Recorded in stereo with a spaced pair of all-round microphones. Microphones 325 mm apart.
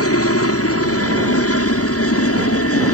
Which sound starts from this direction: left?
A helicopter, at 0.0 s.